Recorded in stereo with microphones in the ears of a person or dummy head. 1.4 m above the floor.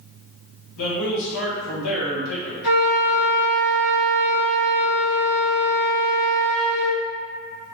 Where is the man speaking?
80° left, 1.3 m.